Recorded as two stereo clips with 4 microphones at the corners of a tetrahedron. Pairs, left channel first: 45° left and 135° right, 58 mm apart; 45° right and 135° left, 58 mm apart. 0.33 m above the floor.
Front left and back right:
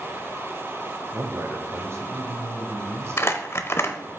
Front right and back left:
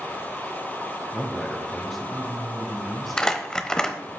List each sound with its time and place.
1.1 s a man speaking: 135° right, 1.9 m
3.2 s crumpling: 30° left, 0.8 m